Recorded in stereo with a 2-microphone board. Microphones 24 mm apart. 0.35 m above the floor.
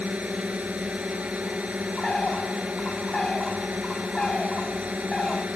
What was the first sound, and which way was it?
A drone, 75° right (ahead or behind).